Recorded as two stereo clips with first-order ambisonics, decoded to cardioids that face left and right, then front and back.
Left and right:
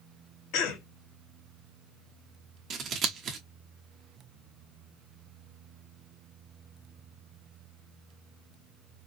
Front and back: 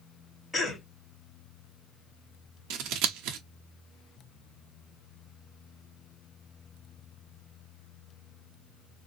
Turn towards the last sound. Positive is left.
turn(degrees=-150)